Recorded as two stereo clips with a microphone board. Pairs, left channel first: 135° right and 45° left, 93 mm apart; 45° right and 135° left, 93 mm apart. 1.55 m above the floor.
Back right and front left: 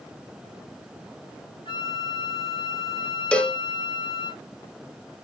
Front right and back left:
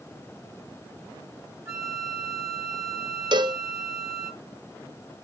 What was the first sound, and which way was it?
A flute, 165° right.